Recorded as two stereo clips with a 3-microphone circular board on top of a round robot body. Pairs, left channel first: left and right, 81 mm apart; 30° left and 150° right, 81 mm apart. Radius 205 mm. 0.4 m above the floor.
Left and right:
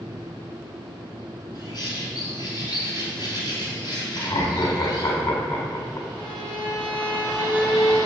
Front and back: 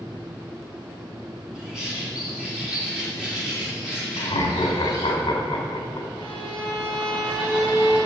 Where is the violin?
55° left, 3.5 m.